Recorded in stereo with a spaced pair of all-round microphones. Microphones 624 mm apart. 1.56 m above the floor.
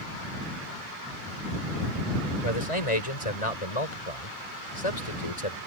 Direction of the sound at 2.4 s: 60° left (ahead or behind).